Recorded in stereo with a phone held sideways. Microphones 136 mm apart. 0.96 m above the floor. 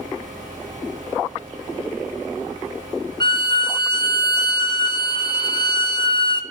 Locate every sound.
0.0 s a fan: 25° right (ahead or behind), 8 m
3.2 s a violin: 35° left (ahead or behind), 0.7 m